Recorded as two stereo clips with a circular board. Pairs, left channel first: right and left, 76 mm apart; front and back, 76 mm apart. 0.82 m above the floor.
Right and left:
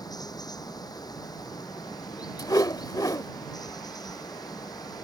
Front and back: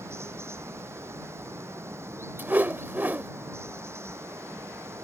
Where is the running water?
125° right.